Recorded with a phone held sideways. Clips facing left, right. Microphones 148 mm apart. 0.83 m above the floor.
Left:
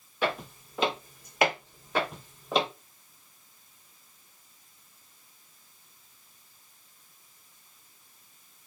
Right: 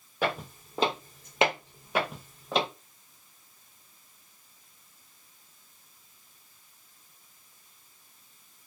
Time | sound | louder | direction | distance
0.2 | footsteps | even | 50° right (ahead or behind) | 1.6 m